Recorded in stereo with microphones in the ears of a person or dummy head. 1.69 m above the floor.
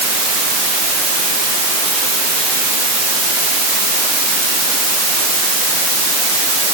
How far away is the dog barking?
I don't hear a dog barking.